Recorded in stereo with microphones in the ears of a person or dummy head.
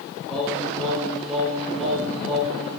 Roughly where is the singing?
Centre.